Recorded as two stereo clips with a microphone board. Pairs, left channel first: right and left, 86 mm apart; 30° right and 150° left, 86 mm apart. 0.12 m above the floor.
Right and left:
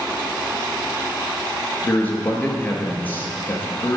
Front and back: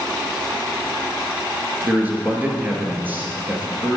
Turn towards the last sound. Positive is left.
turn(degrees=-150)